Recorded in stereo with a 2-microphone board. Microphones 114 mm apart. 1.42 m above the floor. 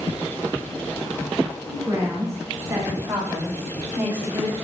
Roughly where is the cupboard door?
No cupboard door in this recording.